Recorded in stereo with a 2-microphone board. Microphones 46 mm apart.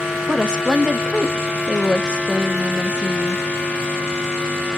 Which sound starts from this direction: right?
A woman speaking, at 0.3 s.